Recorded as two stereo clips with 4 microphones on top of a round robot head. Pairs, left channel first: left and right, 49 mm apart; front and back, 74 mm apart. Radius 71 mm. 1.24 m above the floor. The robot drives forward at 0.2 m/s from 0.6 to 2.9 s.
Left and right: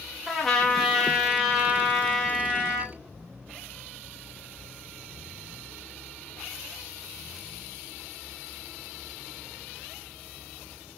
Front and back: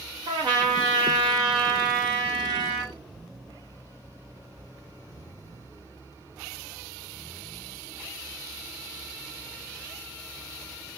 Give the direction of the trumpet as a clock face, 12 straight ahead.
6 o'clock.